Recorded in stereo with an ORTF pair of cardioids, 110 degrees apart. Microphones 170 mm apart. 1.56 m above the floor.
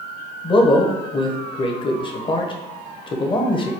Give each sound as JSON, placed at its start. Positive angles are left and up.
{"t": 0.4, "sound": "a man speaking", "azimuth_deg": 30, "distance_m": 0.9}